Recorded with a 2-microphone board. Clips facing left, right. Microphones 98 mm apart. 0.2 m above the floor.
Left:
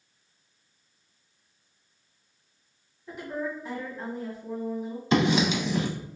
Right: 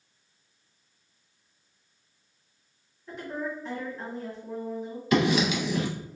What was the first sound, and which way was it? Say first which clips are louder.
A woman speaking: left 1 dB; 10° left (ahead or behind).